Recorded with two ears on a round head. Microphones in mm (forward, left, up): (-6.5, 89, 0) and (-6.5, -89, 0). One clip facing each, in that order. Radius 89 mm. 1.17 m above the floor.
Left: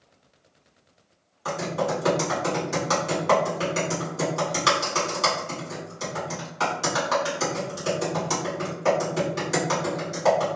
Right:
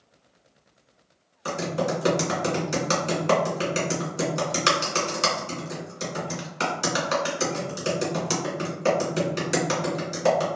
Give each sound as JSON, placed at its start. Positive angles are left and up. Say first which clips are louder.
{"t": 1.4, "sound": "typing on a keyboard", "louder": "even", "side_deg": -30, "distance_m": 1.3}